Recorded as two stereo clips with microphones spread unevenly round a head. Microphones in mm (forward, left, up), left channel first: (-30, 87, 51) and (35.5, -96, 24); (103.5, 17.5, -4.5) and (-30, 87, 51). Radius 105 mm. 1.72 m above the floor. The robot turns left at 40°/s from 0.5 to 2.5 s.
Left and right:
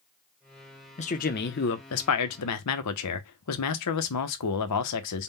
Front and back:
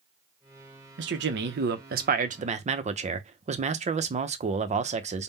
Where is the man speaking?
170° left, 0.8 m; by 5.3 s 110° left, 0.8 m.